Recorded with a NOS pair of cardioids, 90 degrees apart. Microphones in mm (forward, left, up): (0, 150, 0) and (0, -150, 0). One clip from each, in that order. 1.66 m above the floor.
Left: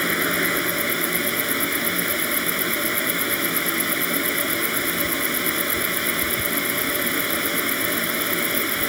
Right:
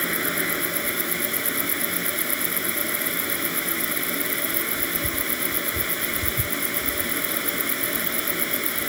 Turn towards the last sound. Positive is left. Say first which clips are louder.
# left 4 dB
turn(degrees=35)